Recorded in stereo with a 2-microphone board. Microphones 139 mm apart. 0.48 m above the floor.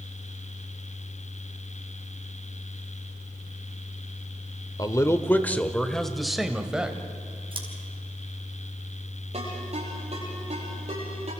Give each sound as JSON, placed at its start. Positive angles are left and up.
{"t": 4.8, "sound": "a man speaking", "side_deg": 25, "distance_m": 1.1}
{"t": 7.5, "sound": "scissors", "side_deg": -40, "distance_m": 4.0}
{"t": 9.3, "sound": "a ringtone", "side_deg": -55, "distance_m": 9.5}